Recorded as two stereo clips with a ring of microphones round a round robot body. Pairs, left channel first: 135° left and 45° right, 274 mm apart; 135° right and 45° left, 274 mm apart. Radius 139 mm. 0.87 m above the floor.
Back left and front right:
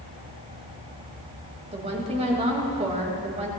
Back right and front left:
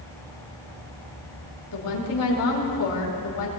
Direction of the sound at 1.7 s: 110° right.